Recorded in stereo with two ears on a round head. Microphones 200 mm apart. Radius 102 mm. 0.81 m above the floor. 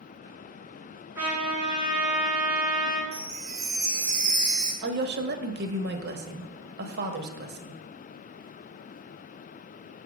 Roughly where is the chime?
Right.